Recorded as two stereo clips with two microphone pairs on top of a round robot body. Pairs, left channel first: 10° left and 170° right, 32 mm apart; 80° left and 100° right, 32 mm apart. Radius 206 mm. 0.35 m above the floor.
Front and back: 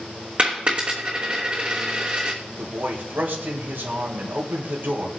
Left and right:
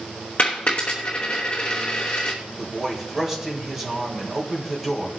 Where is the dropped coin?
130° left, 3 m.